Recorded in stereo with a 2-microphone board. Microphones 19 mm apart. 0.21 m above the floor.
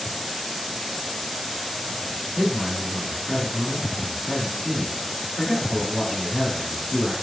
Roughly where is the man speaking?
Centre.